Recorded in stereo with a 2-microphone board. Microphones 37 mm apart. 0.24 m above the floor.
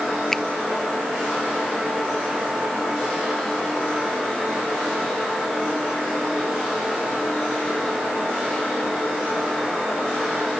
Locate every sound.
0.3 s a finger snap: 5° left (ahead or behind)